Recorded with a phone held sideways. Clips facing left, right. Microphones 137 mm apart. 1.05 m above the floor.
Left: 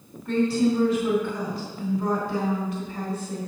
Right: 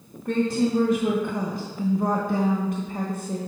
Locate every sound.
0.2 s a woman speaking: 50° right (ahead or behind), 1.1 m